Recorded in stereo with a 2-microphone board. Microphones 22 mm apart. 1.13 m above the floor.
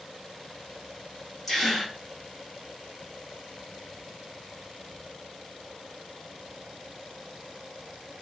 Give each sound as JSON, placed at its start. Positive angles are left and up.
{"t": 1.5, "sound": "a gasp", "side_deg": 5, "distance_m": 0.9}